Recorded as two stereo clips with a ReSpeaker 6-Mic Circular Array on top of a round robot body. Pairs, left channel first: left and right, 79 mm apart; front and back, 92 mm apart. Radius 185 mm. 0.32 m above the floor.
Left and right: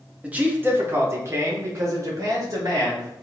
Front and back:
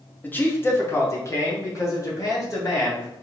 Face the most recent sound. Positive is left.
turn(degrees=-50)